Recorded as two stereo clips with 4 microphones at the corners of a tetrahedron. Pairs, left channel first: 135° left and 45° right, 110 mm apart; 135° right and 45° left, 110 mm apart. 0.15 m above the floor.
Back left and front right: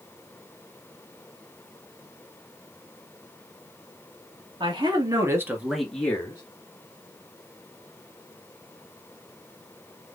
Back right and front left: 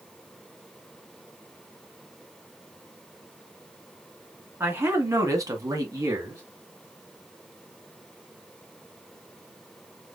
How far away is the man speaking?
About 2.5 m.